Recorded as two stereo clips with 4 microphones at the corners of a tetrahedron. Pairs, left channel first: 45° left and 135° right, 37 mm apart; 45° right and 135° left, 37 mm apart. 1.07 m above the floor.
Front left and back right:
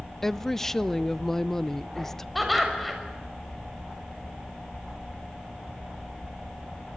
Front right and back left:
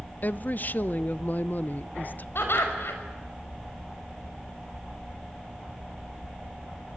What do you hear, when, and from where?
0.2 s a woman speaking: 30° right, 0.6 m
2.4 s laughter: 45° right, 6.5 m